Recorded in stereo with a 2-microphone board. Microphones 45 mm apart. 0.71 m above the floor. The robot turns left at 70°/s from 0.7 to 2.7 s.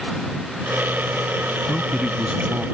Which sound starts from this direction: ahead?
A man speaking, at 1.7 s.